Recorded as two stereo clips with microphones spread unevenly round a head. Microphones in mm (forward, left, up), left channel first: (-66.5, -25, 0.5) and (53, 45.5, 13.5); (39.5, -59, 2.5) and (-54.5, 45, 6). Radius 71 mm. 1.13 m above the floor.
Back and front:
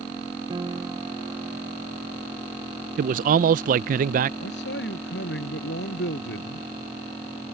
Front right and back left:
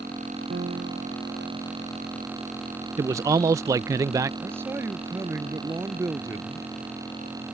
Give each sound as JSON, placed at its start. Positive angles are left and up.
{"t": 0.5, "sound": "a piano", "azimuth_deg": 90}
{"t": 3.0, "sound": "a man speaking", "azimuth_deg": 60}
{"t": 4.4, "sound": "a man speaking", "azimuth_deg": -155}